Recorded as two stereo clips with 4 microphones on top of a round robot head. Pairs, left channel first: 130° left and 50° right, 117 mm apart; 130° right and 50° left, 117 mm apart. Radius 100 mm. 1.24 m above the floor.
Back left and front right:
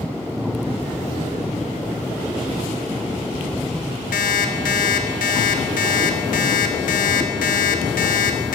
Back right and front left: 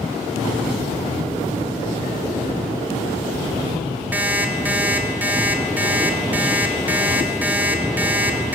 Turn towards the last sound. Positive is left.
turn(degrees=125)